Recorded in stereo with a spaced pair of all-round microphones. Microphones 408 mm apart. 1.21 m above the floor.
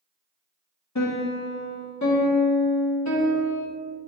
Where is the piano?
40° left (ahead or behind), 1.5 m.